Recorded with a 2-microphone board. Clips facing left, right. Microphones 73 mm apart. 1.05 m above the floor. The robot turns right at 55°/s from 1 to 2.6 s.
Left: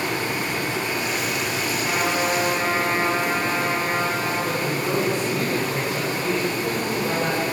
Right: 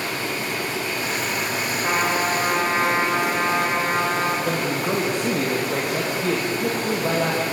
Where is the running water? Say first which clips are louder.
Left 2 dB; 160° left, 4.5 m; by 7.5 s 110° right, 4.5 m.